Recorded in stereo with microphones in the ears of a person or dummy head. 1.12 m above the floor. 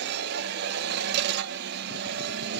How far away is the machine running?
About 0.7 m.